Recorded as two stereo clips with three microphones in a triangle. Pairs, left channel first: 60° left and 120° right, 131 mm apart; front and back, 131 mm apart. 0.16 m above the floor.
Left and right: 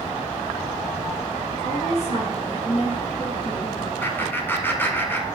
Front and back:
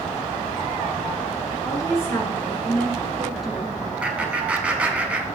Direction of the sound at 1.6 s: 60° left.